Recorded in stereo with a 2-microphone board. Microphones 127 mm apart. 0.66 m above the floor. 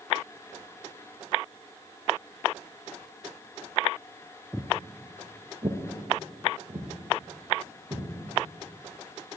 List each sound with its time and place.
4.5 s footsteps: centre (ahead or behind), 0.6 m; by 8.1 s 70° right (ahead or behind), 3 m